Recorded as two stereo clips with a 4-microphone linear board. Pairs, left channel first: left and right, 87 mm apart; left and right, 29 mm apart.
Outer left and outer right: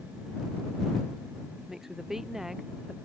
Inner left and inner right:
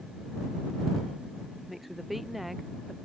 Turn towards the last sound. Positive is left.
turn(degrees=-5)  # may be behind; listen again after turning